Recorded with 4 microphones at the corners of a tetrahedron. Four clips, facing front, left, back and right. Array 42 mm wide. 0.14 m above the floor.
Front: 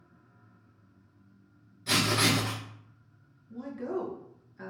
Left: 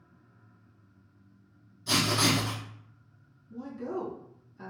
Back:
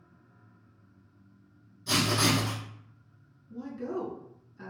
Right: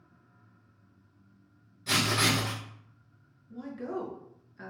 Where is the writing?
40° right, 1.2 m.